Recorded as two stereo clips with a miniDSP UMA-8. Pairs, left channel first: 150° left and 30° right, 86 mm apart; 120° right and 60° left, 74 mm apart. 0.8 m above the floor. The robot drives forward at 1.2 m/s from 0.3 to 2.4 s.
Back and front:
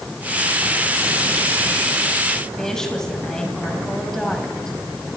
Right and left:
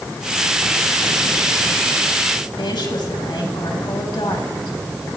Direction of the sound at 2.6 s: 125° right.